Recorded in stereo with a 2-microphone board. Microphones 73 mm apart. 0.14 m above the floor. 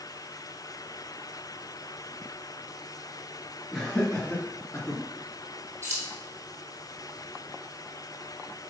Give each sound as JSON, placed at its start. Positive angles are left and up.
{"t": 3.7, "sound": "laughter", "side_deg": 5, "distance_m": 3.0}
{"t": 5.8, "sound": "keys jangling", "side_deg": -30, "distance_m": 4.0}